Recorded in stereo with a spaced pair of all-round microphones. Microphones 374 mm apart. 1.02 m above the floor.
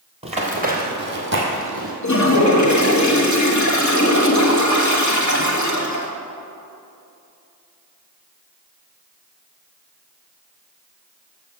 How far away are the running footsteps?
About 1.4 m.